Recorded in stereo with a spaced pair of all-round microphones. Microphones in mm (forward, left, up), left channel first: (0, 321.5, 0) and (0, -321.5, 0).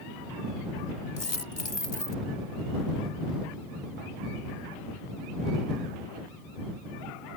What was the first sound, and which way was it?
A dropped coin, 45° left (ahead or behind).